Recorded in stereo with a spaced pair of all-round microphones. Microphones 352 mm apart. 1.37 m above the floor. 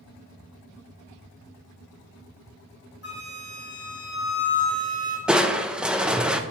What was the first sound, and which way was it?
A flute, 45° left (ahead or behind).